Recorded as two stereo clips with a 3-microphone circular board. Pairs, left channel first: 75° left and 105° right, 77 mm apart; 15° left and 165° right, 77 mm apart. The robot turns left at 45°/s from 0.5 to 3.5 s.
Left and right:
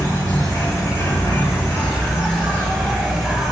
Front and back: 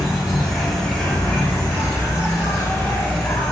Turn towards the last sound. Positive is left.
turn(degrees=-30)